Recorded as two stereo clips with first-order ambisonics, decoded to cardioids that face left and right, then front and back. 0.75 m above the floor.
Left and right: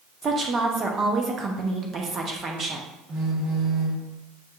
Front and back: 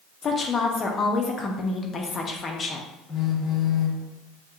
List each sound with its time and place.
0.2 s a woman speaking: 50° right, 0.6 m
3.1 s a phone buzzing: 65° right, 1.0 m